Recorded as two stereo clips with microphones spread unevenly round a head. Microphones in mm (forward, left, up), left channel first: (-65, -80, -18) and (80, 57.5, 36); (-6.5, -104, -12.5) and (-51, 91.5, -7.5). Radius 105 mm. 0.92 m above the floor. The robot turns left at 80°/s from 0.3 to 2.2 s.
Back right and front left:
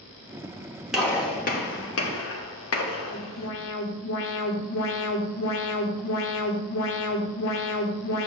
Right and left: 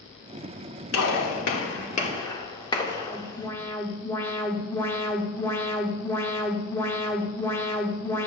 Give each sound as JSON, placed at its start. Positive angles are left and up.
{"t": 0.9, "sound": "a gunshot", "azimuth_deg": -45, "distance_m": 2.0}
{"t": 3.0, "sound": "an alarm", "azimuth_deg": -155, "distance_m": 1.9}